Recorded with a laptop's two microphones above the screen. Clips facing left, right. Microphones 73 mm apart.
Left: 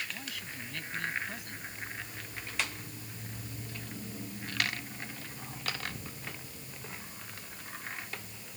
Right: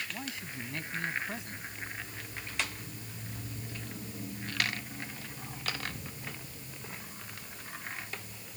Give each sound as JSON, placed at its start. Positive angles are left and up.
{"t": 0.1, "sound": "a man speaking", "side_deg": -25}